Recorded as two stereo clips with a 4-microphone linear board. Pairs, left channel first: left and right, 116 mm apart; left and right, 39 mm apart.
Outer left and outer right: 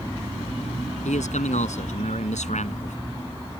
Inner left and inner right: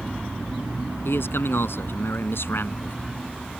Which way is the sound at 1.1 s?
80° left.